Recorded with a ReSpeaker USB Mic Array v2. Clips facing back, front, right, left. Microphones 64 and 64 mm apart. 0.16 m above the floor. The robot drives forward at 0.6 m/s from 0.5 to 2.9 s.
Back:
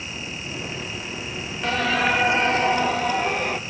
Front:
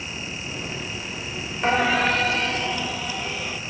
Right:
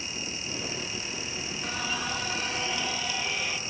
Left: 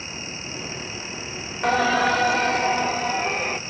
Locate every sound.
1.6 s singing: 60° left, 0.5 m; by 3.6 s 140° left, 0.7 m